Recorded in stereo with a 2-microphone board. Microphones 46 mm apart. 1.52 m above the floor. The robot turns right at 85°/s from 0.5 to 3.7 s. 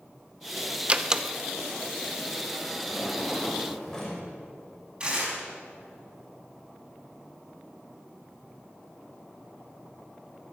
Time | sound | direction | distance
0.9 | a door slam | 30° right (ahead or behind) | 0.7 m
2.9 | a drawer | 65° right | 4.5 m
5.0 | tearing paper | 25° right (ahead or behind) | 4 m